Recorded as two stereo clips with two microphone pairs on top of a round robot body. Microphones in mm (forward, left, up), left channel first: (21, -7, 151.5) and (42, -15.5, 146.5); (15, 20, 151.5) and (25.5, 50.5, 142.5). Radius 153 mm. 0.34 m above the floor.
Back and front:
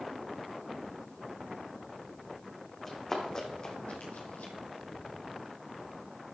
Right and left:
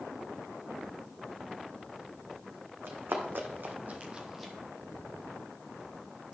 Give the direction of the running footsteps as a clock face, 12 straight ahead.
9 o'clock.